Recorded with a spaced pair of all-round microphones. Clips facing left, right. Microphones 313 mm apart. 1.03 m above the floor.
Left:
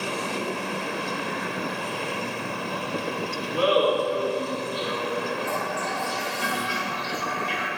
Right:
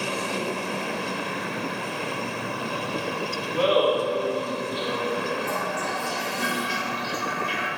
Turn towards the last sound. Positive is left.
turn(degrees=-40)  # may be behind; listen again after turning